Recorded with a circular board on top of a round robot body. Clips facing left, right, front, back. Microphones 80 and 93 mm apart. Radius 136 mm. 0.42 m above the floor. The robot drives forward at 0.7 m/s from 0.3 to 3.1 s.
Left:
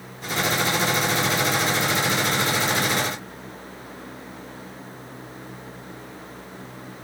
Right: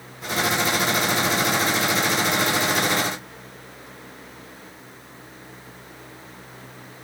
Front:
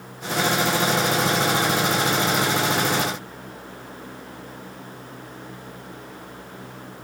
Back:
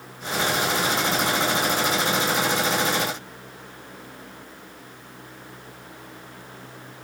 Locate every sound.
Only background noise.